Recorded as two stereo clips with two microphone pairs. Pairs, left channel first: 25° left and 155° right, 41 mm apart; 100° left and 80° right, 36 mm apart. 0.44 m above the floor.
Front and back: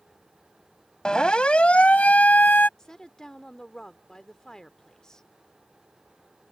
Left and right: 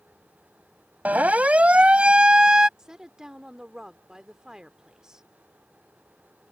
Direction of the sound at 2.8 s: 35° right.